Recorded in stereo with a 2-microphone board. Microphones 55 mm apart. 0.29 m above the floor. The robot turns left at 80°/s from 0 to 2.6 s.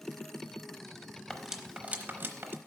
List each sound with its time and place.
1.3 s cutlery clinking: centre (ahead or behind), 0.8 m; by 2.6 s 45° right (ahead or behind), 0.8 m